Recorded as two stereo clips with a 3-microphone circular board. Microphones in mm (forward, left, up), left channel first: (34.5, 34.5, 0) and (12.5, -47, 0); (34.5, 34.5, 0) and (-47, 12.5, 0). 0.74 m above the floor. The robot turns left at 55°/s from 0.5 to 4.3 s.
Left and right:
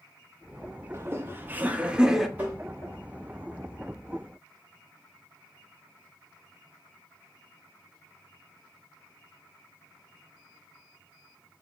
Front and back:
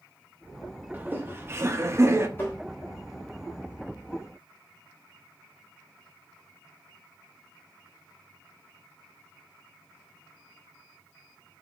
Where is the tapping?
40° right, 1.2 m; by 2.6 s 55° right, 1.2 m.